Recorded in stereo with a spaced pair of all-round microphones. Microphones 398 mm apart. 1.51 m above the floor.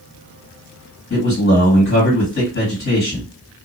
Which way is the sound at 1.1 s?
30° left (ahead or behind).